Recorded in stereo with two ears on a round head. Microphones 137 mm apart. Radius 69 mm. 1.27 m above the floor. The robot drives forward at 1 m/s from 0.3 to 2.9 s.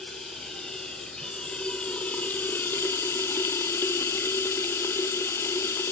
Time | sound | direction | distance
0.0 | running water | 5° left (ahead or behind) | 3 m